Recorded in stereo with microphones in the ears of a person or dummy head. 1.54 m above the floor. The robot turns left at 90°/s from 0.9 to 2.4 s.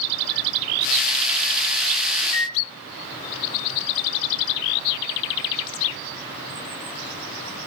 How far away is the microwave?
About 2 m.